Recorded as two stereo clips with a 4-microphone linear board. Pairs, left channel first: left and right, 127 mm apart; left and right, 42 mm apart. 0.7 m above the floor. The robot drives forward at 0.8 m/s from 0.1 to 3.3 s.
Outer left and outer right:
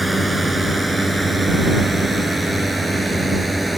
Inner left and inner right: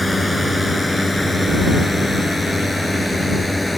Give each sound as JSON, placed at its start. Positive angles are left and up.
{"t": 0.0, "sound": "a drone", "side_deg": 0}